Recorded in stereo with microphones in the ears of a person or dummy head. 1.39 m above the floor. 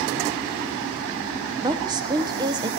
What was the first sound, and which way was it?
A woman speaking, 20° right (ahead or behind).